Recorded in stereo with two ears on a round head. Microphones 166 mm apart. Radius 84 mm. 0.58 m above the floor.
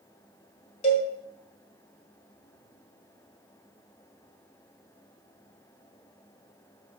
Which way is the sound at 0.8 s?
35° left (ahead or behind).